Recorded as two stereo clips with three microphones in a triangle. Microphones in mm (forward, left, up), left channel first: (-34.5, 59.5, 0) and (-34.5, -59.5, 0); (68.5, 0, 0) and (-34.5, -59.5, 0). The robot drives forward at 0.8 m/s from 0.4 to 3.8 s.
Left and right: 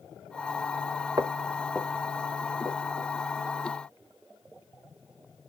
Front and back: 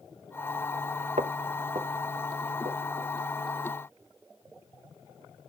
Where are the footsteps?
150° right, 1.0 m; by 3.1 s 175° right, 4.5 m.